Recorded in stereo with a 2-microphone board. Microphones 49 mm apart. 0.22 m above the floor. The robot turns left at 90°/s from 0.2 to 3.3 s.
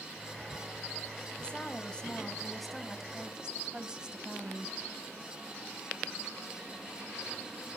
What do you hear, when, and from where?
1.4 s a woman speaking: 20° left (ahead or behind), 1.2 m; by 4.8 s 15° right (ahead or behind), 1.2 m